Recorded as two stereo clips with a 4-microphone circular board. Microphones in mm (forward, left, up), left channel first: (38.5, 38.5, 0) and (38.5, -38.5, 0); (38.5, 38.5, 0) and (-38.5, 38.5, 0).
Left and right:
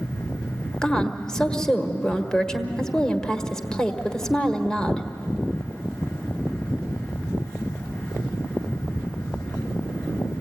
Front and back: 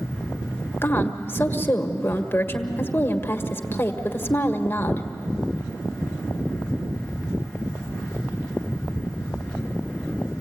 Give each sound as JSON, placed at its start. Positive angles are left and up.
{"t": 0.8, "sound": "a woman speaking", "azimuth_deg": 15, "distance_m": 1.3}